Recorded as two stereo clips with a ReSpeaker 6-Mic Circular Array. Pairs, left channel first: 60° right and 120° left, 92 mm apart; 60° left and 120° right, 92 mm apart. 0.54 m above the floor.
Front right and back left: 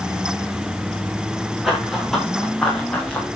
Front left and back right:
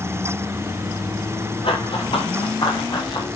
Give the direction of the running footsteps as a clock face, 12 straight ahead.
11 o'clock.